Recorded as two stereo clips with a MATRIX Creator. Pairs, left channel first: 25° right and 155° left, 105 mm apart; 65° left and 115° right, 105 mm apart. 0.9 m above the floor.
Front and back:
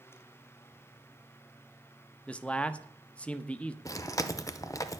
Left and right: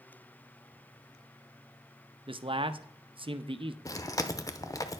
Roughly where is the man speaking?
Right.